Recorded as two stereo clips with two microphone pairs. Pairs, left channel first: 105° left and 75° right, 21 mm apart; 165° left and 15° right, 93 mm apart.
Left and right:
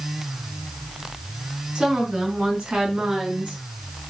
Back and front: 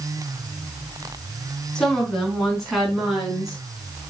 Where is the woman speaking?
110° right, 4 m; by 3.6 s 95° right, 5 m.